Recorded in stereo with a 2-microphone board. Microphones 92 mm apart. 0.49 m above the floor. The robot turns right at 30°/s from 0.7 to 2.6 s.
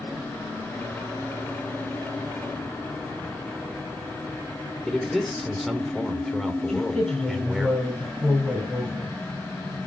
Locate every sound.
4.8 s a man speaking: 5° left (ahead or behind), 1.5 m
6.7 s a woman speaking: 10° left (ahead or behind), 7 m